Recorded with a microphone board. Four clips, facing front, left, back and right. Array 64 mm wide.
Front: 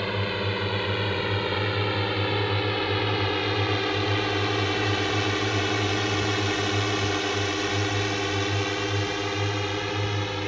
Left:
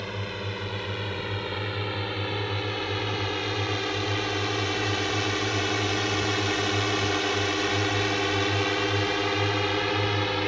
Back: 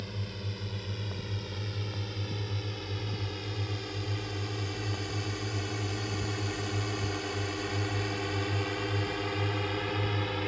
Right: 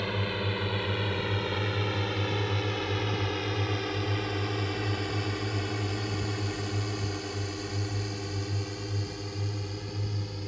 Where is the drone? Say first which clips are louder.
Right 2 dB, front 13 dB; 5° right; by 10.5 s 75° left.